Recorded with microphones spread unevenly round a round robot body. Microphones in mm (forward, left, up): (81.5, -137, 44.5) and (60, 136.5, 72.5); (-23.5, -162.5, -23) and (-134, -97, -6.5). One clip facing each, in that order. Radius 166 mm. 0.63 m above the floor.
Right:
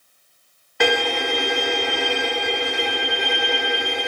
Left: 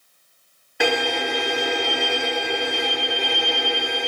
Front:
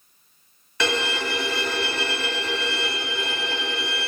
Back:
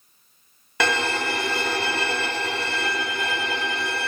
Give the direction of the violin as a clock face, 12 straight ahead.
6 o'clock.